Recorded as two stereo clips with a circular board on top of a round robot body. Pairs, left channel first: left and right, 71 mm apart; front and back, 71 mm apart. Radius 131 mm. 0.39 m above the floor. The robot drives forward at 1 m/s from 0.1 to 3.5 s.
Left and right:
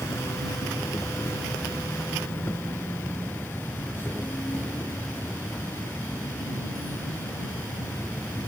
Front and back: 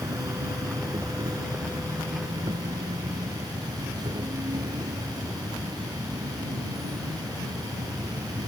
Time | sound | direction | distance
0.0 | an insect | 145° left | ?